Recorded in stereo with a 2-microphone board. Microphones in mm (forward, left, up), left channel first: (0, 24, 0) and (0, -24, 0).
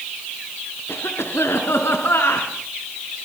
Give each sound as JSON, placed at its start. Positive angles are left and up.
{"t": 0.9, "sound": "a cough", "side_deg": 70, "distance_m": 3.0}